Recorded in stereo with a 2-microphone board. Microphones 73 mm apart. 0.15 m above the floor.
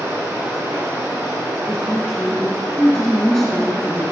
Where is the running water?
35° right (ahead or behind), 4 m.